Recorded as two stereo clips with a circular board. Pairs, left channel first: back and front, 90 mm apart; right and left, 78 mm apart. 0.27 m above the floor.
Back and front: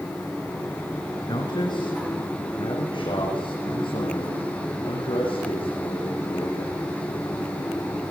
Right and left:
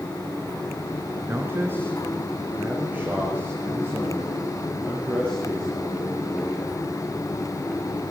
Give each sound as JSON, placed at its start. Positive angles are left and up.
{"t": 1.3, "sound": "a man speaking", "azimuth_deg": 150, "distance_m": 3.5}